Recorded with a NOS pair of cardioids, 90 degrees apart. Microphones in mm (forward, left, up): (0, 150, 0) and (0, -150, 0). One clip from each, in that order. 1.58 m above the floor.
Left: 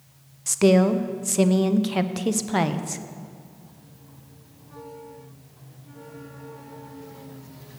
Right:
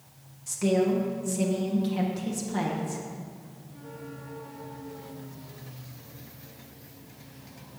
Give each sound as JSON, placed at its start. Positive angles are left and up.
{"t": 0.5, "sound": "a woman speaking", "azimuth_deg": 65, "distance_m": 0.8}